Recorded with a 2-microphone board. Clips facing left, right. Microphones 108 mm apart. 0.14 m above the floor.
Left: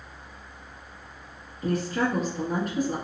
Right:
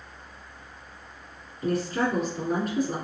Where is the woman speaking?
35° right (ahead or behind), 1.6 m.